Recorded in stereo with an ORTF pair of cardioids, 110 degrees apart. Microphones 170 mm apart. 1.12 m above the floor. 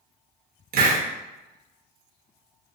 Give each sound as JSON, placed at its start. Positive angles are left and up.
{"t": 0.7, "sound": "a hiss", "azimuth_deg": -60, "distance_m": 0.9}